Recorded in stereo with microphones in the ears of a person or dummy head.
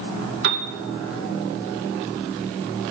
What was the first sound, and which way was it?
A piano, 60° right (ahead or behind).